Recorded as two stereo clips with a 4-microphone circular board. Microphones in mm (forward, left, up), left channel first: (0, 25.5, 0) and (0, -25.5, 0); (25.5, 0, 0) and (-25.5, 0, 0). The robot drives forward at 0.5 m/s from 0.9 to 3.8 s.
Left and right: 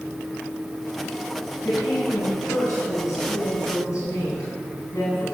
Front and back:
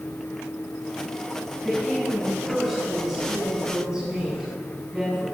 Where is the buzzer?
I don't hear a buzzer.